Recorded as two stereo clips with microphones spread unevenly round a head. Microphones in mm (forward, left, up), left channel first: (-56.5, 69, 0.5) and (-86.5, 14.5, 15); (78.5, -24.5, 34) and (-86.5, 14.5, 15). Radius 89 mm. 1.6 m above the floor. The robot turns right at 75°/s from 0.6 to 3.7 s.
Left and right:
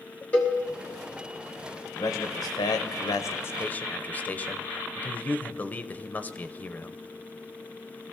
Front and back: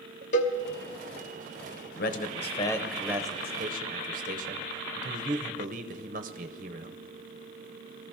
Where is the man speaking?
5° right, 0.8 m; by 7.0 s 125° left, 0.8 m.